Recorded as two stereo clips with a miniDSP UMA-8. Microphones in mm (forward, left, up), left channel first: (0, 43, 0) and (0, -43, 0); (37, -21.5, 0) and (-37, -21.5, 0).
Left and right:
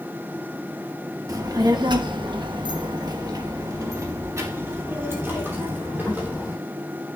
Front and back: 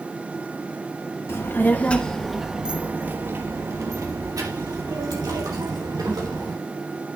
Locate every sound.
1.3 s a child speaking: 50° right, 1.3 m; by 6.5 s 160° right, 3.5 m